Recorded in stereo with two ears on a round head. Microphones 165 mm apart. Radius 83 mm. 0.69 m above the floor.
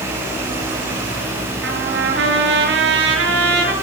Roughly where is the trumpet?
Right.